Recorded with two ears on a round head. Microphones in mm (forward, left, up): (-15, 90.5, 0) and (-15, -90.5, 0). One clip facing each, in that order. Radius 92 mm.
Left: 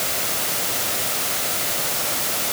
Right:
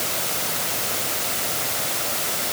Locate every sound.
Only background noise.